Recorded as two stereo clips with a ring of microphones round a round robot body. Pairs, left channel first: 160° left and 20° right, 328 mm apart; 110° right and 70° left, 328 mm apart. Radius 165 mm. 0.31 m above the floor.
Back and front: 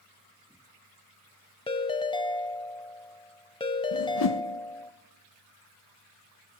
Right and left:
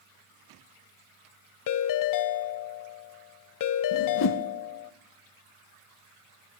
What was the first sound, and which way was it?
A ringtone, 130° right.